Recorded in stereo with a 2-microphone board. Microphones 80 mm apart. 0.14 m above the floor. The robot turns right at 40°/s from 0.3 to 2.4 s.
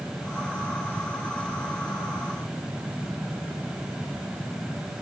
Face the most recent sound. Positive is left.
No sound to turn to.